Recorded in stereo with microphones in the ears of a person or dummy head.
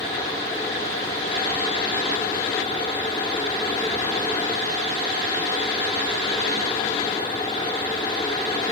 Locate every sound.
Only background noise.